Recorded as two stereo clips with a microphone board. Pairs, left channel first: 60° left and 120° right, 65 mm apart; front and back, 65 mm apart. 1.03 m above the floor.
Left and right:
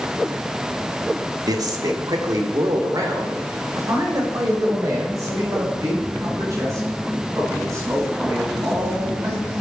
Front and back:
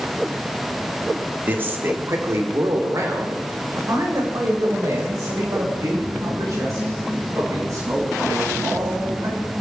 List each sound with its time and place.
1.5 s a man speaking: 120° right, 1.7 m; by 9.5 s 160° right, 10 m